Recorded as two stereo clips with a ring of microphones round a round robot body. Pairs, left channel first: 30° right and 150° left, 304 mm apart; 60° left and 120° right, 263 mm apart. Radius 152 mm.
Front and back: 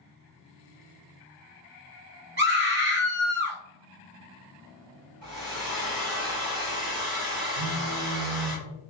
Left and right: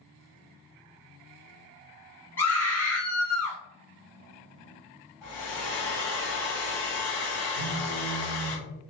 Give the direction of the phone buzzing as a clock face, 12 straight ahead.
7 o'clock.